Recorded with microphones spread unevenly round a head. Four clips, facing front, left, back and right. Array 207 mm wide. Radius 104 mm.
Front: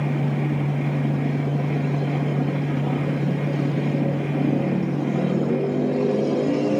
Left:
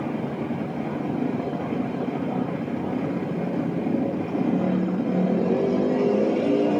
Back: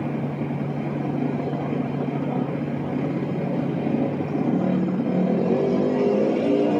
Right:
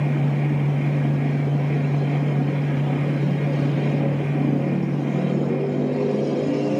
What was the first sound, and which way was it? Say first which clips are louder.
A fan: right 3 dB, front 2 dB; 65° right.